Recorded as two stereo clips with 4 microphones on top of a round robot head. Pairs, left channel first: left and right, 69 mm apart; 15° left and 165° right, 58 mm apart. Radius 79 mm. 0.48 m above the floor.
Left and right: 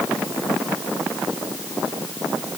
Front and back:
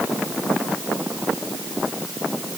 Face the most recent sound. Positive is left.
No sound to turn to.